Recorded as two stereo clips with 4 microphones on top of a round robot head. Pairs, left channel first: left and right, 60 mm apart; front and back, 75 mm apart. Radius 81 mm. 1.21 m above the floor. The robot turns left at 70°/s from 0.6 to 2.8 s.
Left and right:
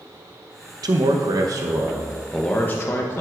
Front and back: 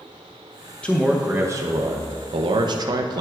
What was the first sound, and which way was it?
A man speaking, 75° right.